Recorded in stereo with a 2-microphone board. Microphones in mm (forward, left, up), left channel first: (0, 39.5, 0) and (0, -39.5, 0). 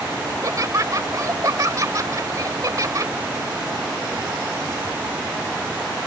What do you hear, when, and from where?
0.3 s laughter: 45° right (ahead or behind)